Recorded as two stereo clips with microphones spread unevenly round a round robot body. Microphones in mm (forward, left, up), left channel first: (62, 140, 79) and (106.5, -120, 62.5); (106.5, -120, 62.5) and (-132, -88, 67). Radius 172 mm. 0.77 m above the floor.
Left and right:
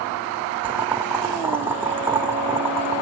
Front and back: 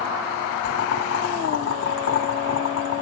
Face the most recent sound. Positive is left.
turn(degrees=5)